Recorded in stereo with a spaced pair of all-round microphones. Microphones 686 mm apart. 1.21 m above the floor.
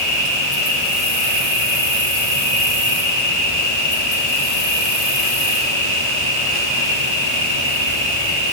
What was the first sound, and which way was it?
An insect, 80° left.